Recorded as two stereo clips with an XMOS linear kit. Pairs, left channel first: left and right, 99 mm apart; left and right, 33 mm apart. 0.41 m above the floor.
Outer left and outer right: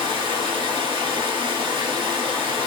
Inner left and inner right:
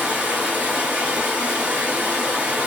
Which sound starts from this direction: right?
Running water, at 0.0 s.